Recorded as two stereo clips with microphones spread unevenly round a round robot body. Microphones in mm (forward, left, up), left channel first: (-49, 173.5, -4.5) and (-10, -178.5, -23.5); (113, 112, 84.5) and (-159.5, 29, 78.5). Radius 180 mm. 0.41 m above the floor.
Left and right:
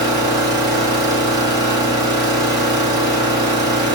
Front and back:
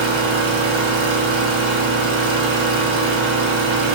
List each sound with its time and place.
0.0 s an engine running: 165° right, 4 m